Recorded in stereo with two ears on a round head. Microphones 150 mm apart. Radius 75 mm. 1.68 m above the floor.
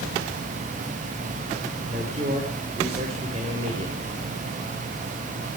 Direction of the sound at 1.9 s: 35° right (ahead or behind).